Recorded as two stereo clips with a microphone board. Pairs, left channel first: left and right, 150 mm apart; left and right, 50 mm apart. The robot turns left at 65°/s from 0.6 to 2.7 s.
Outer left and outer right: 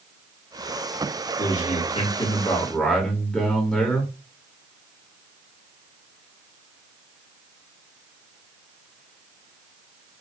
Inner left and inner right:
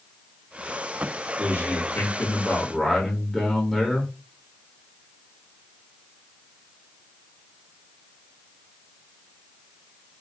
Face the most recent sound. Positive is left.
turn(degrees=5)